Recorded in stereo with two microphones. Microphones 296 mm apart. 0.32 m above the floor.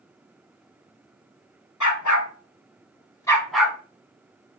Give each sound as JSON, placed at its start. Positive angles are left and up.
{"t": 1.8, "sound": "a dog barking", "side_deg": 80, "distance_m": 0.8}